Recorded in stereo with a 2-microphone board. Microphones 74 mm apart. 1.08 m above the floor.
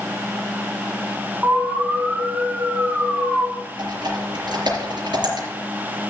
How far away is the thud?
No thud in this recording.